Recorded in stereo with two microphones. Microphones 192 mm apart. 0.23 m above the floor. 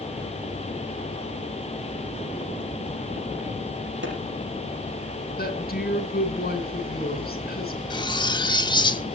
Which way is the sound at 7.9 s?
20° left (ahead or behind).